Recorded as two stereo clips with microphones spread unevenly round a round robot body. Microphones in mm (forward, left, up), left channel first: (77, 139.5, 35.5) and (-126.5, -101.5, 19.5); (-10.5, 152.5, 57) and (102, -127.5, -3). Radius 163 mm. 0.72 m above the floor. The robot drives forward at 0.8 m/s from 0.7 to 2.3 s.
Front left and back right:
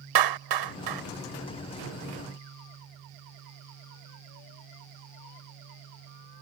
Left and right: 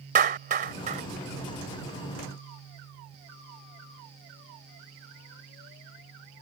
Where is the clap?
135° right.